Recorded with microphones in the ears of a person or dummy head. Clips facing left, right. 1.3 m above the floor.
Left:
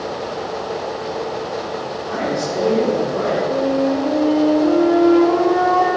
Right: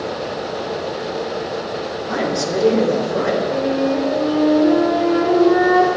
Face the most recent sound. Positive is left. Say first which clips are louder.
# left 1 dB
turn(degrees=-20)  # may be behind; listen again after turning